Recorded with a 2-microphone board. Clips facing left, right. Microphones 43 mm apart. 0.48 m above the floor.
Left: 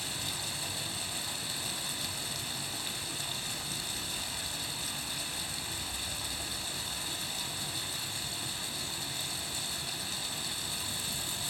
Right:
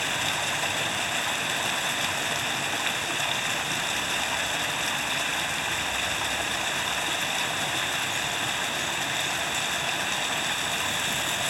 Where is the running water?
70° right (ahead or behind), 0.8 m.